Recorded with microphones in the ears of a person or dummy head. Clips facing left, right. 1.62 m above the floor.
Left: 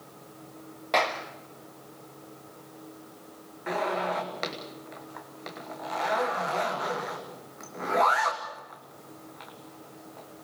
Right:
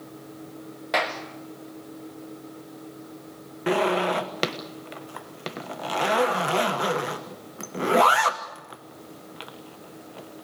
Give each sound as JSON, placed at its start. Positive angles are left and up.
{"t": 0.9, "sound": "a clap", "side_deg": -5, "distance_m": 1.6}
{"t": 3.7, "sound": "a zipper", "side_deg": -50, "distance_m": 1.3}